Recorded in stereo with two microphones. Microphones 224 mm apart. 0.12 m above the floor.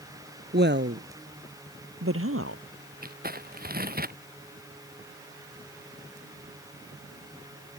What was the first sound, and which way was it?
A woman speaking, 45° right (ahead or behind).